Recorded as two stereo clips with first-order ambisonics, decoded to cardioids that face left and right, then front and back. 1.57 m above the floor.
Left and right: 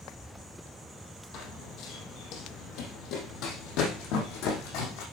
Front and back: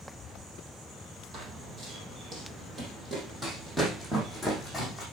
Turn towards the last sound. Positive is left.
turn(degrees=90)